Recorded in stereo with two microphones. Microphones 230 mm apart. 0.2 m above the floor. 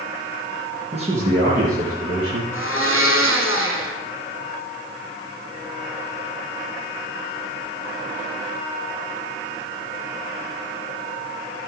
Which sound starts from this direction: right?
A man speaking, at 0.9 s.